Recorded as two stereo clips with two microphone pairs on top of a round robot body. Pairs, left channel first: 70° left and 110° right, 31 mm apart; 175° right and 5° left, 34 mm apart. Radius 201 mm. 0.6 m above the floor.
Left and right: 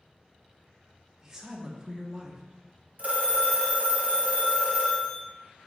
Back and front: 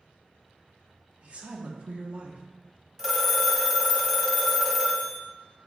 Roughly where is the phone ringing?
Right.